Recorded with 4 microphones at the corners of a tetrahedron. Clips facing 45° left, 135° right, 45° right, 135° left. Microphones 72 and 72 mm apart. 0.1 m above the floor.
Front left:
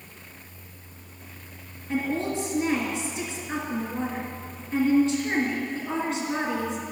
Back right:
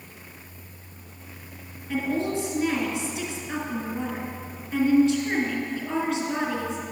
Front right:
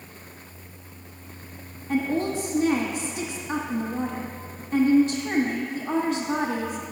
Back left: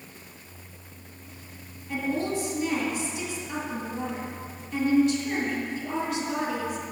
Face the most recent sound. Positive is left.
turn(degrees=-15)